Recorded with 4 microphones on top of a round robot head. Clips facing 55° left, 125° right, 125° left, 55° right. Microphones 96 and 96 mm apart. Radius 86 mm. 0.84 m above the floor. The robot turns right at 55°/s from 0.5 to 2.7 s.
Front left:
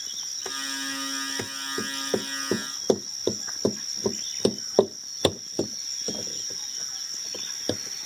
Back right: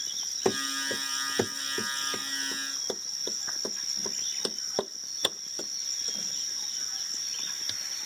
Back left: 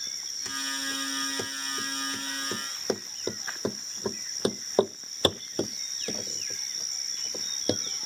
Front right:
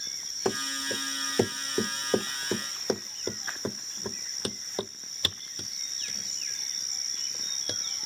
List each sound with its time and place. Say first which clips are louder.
0.5 s running footsteps: back right 6 dB, front right 6 dB; 105° right; by 8.1 s 110° left